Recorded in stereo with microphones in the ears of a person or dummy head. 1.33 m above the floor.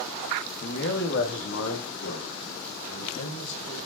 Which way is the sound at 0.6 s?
55° left (ahead or behind).